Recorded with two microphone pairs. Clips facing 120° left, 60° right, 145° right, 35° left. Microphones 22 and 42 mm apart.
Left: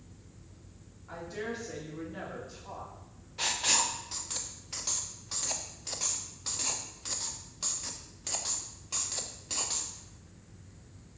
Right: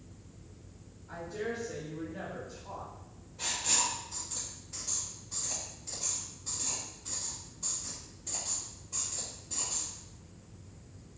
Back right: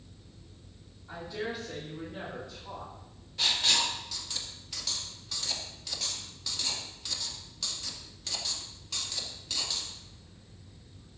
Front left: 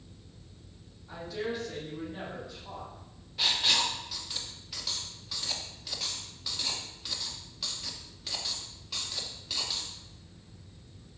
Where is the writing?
120° left, 0.5 m.